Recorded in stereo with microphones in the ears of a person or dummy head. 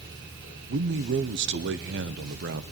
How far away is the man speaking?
About 0.9 m.